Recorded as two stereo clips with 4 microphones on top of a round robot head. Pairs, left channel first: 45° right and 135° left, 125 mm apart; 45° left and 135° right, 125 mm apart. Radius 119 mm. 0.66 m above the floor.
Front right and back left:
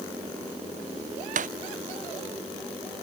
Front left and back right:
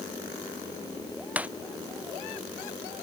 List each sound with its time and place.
1.4 s breaking glass: 145° left